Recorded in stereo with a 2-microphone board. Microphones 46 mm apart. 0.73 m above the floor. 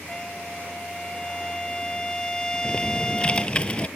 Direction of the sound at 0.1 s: 15° left (ahead or behind).